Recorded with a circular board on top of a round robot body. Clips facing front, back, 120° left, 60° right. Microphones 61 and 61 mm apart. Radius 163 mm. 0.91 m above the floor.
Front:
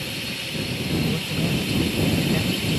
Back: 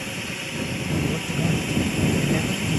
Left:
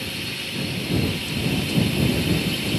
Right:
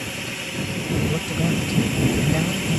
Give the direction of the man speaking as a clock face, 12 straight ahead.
3 o'clock.